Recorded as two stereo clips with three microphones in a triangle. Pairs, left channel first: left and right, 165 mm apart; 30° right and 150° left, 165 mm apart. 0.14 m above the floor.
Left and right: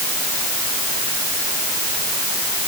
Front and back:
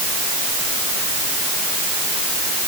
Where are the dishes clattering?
I don't hear dishes clattering.